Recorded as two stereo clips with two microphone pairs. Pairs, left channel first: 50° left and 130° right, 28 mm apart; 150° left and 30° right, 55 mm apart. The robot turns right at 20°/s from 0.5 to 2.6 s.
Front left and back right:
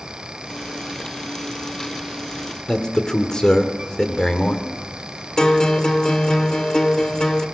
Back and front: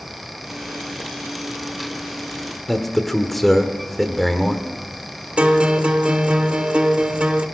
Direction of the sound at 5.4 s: 15° left.